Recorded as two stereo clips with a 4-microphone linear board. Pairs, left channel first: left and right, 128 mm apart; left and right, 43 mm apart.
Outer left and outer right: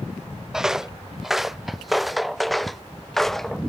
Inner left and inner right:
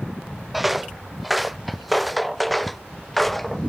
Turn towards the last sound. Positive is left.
turn(degrees=5)  # may be behind; listen again after turning